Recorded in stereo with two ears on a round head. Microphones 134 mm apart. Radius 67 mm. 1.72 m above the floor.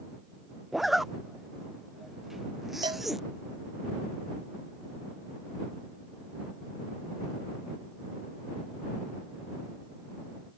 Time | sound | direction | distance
0.7 | a zipper | centre (ahead or behind) | ?
2.8 | a cowbell | 35° right (ahead or behind) | ?